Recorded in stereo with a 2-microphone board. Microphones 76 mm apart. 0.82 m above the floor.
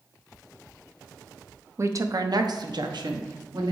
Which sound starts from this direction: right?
A woman speaking, at 1.8 s.